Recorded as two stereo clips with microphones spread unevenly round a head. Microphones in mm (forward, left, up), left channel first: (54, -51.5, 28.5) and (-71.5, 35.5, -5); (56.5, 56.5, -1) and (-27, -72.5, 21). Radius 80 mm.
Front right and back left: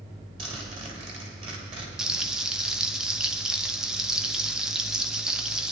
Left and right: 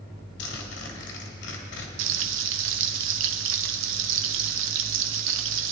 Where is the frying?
130° right, 0.7 m.